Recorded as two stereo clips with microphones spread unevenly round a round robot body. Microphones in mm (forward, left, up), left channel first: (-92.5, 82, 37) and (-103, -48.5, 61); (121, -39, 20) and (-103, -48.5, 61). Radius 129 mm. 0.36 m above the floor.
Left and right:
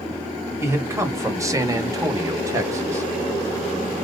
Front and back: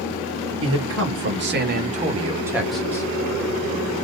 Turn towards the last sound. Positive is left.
turn(degrees=-25)